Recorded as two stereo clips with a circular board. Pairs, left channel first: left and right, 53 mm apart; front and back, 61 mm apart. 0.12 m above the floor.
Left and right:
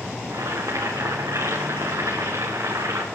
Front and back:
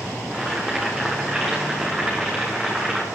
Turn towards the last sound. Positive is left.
turn(degrees=-95)